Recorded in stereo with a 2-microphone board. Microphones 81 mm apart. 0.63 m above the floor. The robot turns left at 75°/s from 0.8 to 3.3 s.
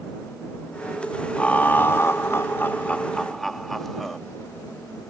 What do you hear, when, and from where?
1.4 s laughter: 150° left; by 4.2 s 5° left